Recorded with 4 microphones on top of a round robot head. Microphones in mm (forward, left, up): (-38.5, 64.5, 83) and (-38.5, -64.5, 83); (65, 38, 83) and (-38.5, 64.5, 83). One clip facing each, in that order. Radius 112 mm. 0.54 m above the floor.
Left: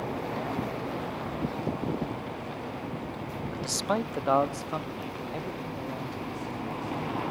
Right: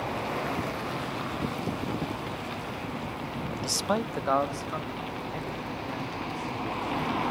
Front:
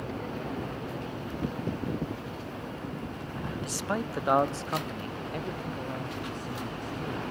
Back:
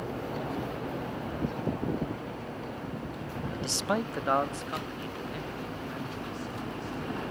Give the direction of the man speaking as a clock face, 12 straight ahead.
5 o'clock.